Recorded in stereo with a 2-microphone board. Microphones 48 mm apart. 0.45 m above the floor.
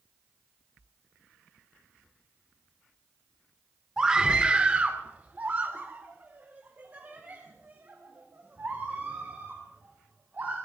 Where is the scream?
15° right (ahead or behind), 1.3 m; by 10.6 s 40° right (ahead or behind), 3.5 m.